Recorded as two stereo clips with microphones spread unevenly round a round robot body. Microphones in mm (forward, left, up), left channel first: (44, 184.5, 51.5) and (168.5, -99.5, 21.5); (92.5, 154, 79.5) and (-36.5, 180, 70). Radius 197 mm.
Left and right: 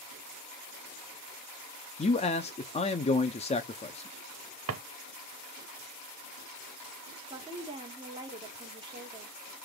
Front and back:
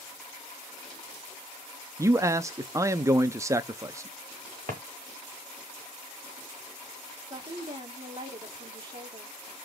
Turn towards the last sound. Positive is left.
turn(degrees=-140)